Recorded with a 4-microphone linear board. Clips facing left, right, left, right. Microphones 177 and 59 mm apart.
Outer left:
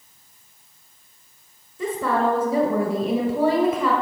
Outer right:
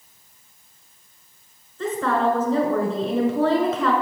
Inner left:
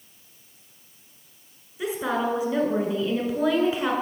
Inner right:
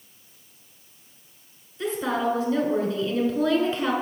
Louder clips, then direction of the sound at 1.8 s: Even, even; 10° left (ahead or behind).